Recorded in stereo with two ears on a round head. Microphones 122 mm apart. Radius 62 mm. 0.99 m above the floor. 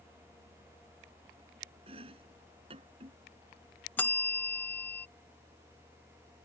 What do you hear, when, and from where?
1.9 s chopping: 45° right (ahead or behind)
4.0 s a bell: 15° left (ahead or behind)